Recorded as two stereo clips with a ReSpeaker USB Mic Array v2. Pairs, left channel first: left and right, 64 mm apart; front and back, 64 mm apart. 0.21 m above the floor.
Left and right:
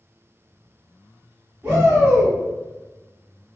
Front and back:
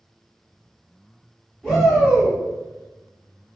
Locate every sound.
1.6 s a shout: 110° right, 1.6 m